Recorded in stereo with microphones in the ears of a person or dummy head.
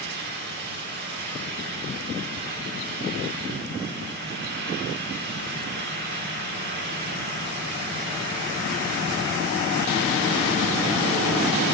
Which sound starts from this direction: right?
A fan, at 0.0 s.